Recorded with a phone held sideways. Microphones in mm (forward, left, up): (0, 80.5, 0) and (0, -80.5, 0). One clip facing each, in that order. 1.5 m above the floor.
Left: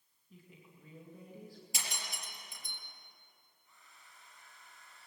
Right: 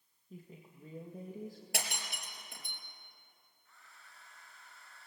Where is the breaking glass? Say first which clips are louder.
Right 3 dB; 70° right (ahead or behind), 4 m.